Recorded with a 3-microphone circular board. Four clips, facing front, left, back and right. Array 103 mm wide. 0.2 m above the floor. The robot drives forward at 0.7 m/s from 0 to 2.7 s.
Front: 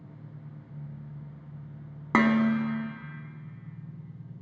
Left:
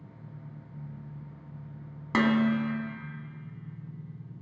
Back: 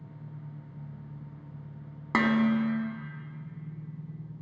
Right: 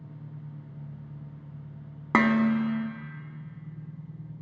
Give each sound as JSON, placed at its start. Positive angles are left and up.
{"t": 0.0, "sound": "an engine running", "azimuth_deg": -110, "distance_m": 4.0}
{"t": 2.1, "sound": "dishes clattering", "azimuth_deg": -65, "distance_m": 0.9}